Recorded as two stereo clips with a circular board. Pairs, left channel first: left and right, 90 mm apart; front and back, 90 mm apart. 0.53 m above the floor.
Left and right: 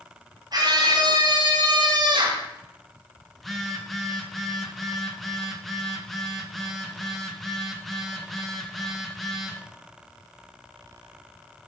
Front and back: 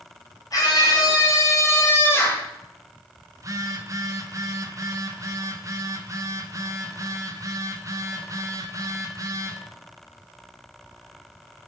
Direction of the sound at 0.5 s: 45° right.